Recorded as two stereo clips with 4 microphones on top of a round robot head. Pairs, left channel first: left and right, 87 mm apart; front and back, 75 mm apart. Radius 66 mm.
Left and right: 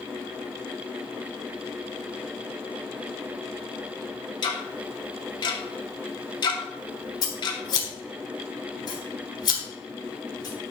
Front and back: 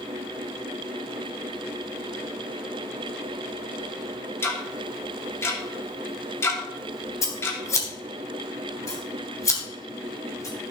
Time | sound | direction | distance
4.4 | ticking | 55° left | 2.5 m
7.2 | scissors | 50° left | 3 m